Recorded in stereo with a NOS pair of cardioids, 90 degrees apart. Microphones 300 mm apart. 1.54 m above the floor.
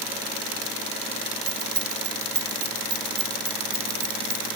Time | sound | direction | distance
1.5 | keys jangling | 55° right | 2.0 m